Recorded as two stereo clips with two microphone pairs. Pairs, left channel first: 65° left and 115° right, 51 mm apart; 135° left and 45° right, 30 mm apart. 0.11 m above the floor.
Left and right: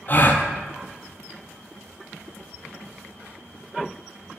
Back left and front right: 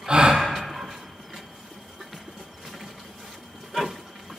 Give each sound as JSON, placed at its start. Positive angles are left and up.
{"t": 0.1, "sound": "a gasp", "azimuth_deg": 15, "distance_m": 0.7}